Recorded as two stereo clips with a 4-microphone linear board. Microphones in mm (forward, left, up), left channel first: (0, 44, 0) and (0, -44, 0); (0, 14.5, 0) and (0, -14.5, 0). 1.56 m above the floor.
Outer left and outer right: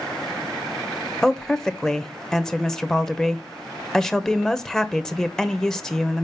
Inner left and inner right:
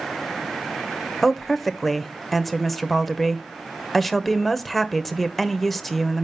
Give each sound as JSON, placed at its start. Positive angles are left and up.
{"t": 1.2, "sound": "a woman speaking", "side_deg": 5, "distance_m": 0.9}